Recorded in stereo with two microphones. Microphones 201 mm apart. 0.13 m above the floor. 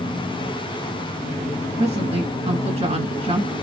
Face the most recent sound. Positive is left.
turn(degrees=-30)  # may be behind; listen again after turning